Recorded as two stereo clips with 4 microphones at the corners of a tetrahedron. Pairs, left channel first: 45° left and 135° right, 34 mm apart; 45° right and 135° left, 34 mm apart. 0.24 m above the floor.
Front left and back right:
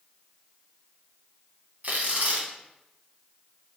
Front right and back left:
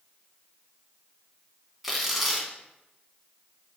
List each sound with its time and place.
1.8 s tearing paper: 140° right, 0.8 m